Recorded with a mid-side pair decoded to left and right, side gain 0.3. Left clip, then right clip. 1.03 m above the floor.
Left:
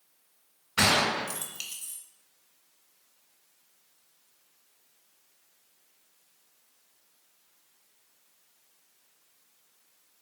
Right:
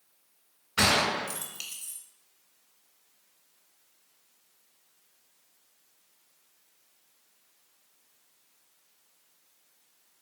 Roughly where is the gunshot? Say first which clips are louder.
Even; ahead.